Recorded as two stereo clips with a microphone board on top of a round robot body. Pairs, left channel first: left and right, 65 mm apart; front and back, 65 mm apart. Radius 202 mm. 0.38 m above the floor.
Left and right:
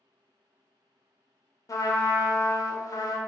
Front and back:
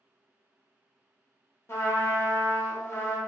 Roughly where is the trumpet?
Ahead left.